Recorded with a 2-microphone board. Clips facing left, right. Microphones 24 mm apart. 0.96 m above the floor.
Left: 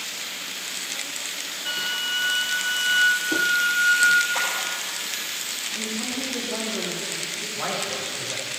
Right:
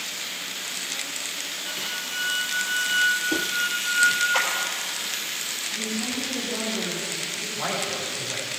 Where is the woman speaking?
60° left (ahead or behind), 2.5 m.